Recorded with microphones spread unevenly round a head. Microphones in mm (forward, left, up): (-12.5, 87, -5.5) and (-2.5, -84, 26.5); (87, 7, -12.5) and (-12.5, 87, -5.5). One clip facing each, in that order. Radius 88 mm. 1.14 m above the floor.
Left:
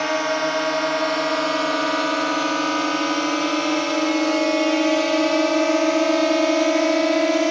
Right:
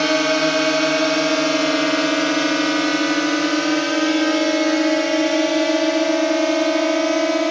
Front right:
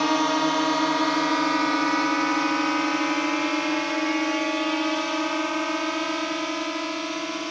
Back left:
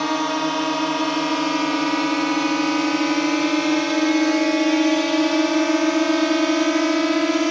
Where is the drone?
125° right; by 7.5 s straight behind.